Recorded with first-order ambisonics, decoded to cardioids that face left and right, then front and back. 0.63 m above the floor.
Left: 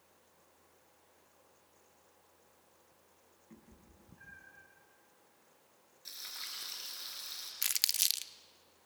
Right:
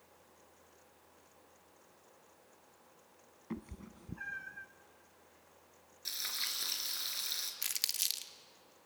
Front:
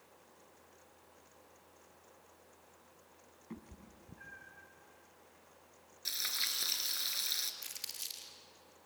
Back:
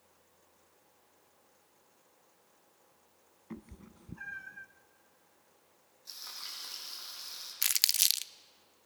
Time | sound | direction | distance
3.5 | a cat meowing | 100° right | 0.8 m
6.0 | frying | 25° right | 3.5 m
7.6 | crumpling | 165° left | 0.7 m